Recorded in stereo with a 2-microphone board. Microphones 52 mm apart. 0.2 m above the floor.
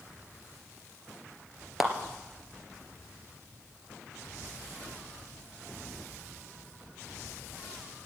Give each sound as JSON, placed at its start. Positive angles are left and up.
{"t": 1.8, "sound": "a clap", "side_deg": -5, "distance_m": 2.5}